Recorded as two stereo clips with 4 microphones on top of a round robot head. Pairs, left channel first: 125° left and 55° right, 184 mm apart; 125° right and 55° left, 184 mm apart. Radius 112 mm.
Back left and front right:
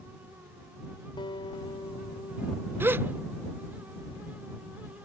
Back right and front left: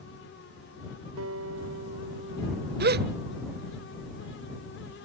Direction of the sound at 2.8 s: 25° left.